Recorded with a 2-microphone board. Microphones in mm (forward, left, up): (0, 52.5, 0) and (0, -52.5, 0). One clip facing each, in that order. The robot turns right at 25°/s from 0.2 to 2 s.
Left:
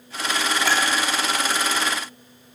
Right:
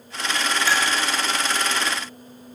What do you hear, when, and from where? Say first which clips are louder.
0.6 s a clink: even; 60° left (ahead or behind), 2.5 m; by 0.8 s 55° left (ahead or behind), 2.5 m